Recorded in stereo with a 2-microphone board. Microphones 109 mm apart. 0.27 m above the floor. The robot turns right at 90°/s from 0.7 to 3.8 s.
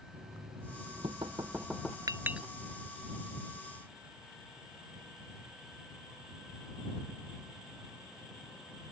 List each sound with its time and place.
0.1 s knocking: 100° right; by 2.0 s 15° left
2.1 s a clink: 35° right (ahead or behind); by 2.5 s centre (ahead or behind)